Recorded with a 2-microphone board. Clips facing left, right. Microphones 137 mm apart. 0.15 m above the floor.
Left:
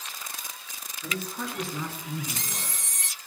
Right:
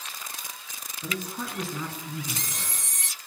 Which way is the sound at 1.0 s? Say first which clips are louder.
Even; 20° right (ahead or behind).